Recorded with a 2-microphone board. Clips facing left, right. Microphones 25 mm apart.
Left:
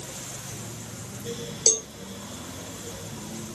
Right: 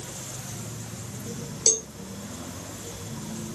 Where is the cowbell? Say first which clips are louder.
Left 1 dB; 20° left (ahead or behind).